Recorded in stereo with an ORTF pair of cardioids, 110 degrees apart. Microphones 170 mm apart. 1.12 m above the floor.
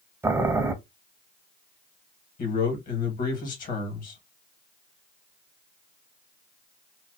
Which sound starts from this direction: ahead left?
A man speaking, at 2.4 s.